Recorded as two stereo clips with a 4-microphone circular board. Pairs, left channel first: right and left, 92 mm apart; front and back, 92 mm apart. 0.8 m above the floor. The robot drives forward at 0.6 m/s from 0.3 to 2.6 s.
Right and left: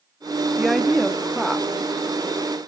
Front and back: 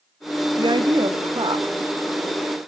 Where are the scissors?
No scissors in this recording.